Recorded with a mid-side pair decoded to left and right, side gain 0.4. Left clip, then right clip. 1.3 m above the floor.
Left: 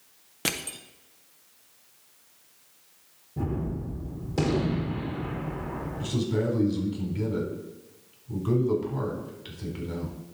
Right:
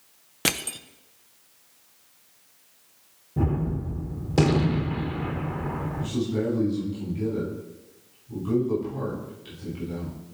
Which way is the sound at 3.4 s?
50° right.